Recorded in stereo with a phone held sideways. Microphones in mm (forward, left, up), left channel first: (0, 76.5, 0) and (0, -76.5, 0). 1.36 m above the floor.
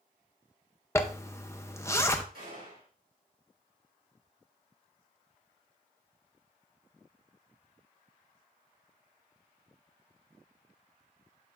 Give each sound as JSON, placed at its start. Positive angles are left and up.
{"t": 0.9, "sound": "a zipper", "side_deg": 20, "distance_m": 0.6}
{"t": 2.3, "sound": "a gunshot", "side_deg": -85, "distance_m": 3.5}